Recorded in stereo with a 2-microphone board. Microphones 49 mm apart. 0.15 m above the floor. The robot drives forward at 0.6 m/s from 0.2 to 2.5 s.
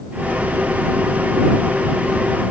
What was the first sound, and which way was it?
Only background noise.